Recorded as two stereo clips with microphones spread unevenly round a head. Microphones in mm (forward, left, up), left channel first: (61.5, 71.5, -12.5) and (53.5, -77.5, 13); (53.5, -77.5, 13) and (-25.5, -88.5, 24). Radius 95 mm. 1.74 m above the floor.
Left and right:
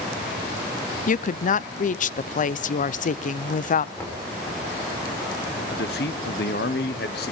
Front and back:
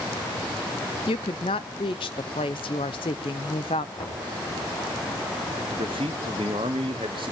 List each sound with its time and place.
1.1 s a woman speaking: 50° left, 0.6 m
4.0 s knocking: 5° left, 4.5 m
5.7 s a man speaking: 130° left, 1.2 m